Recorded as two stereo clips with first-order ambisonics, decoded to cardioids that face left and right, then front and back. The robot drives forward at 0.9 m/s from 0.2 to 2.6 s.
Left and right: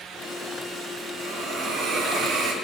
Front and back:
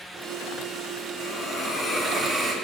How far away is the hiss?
About 1.5 m.